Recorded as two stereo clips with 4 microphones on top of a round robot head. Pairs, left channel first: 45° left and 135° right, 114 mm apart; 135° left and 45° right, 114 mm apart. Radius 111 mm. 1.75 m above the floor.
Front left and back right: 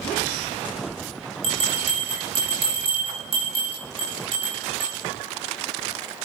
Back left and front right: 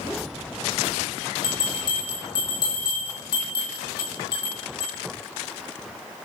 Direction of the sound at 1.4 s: 175° right.